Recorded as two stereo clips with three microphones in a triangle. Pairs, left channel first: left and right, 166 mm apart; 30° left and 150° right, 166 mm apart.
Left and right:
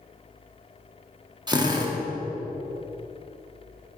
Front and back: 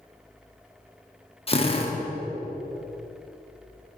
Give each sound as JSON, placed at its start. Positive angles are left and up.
{"t": 1.5, "sound": "a drill", "azimuth_deg": -25, "distance_m": 0.8}